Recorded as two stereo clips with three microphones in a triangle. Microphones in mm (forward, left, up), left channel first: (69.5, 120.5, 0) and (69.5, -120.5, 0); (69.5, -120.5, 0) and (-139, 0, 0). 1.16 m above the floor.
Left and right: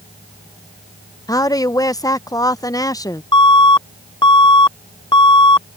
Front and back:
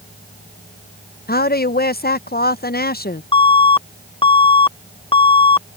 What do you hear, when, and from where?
1.3 s a woman speaking: 15° left
3.3 s an alarm: 25° left